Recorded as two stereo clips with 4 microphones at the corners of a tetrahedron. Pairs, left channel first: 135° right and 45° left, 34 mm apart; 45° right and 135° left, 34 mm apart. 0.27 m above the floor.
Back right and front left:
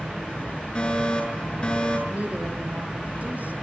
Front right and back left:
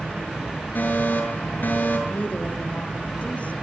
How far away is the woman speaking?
About 6.5 m.